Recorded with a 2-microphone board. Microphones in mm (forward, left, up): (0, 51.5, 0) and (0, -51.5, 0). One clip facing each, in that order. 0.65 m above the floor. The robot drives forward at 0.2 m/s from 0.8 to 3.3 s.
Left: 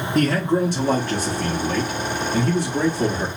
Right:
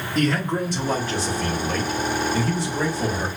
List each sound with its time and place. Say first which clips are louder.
0.1 s a man speaking: left 3 dB; 45° left (ahead or behind), 0.9 m; by 3.3 s 50° left (ahead or behind), 0.9 m